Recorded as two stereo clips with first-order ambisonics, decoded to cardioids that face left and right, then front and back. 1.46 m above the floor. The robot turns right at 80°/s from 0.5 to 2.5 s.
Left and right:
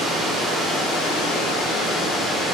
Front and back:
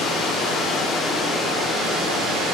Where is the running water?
20° left, 2.0 m; by 2.5 s straight behind, 2.0 m.